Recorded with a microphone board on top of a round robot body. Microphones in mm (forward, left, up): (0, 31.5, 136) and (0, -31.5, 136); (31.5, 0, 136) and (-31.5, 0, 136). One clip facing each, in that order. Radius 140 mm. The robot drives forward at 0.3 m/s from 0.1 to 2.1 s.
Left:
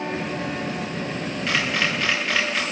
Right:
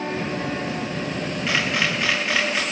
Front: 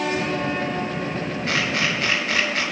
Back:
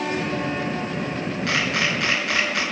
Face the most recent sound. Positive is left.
turn(degrees=-175)